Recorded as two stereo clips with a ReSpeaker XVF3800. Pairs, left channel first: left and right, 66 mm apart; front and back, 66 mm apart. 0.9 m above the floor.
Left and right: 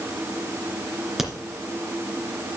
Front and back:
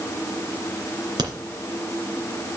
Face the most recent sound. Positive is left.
turn(degrees=-175)